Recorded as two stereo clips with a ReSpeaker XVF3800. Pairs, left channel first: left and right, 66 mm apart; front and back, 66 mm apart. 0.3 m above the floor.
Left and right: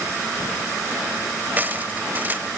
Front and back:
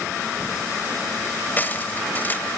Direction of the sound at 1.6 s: 45° right.